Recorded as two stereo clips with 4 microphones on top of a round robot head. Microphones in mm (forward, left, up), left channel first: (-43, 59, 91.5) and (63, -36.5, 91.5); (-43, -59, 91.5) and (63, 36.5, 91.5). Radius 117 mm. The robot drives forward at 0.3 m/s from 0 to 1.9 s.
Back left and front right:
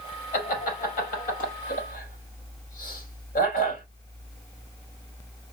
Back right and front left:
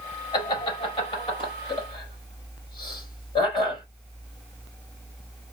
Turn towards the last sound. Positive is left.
turn(degrees=170)